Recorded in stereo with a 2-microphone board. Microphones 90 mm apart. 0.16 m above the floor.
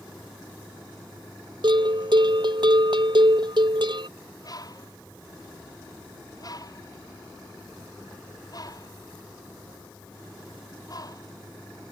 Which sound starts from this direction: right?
A bell, at 1.6 s.